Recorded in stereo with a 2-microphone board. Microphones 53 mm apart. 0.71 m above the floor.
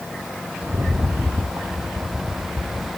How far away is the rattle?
About 0.6 m.